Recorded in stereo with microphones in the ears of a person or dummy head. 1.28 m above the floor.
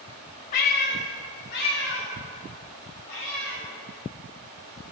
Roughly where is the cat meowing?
Left.